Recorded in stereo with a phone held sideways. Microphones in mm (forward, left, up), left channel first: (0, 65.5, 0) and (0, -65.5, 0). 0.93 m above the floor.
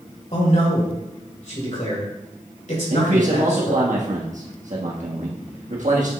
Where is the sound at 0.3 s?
70° left (ahead or behind), 3.5 m.